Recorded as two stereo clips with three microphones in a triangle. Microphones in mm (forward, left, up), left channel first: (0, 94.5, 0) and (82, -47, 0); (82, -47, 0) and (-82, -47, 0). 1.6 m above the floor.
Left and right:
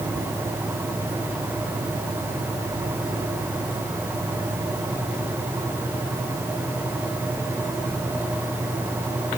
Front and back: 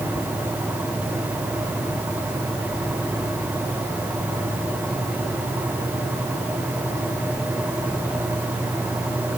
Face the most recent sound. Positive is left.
No sound to turn to.